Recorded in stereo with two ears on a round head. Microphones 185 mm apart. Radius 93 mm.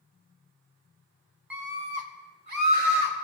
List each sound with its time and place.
1.5 s a scream: 10° right (ahead or behind), 1.0 m; by 3.1 s 60° right (ahead or behind), 3 m